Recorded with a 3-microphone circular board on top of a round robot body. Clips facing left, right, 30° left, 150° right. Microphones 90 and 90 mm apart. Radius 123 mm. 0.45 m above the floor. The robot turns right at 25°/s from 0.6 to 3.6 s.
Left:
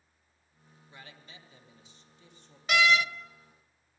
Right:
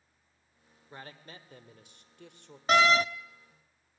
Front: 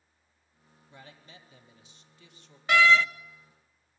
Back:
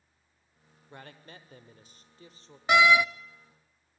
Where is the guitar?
No guitar in this recording.